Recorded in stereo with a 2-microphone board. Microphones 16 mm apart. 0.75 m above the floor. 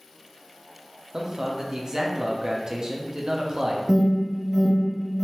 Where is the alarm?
45° right (ahead or behind), 0.8 m.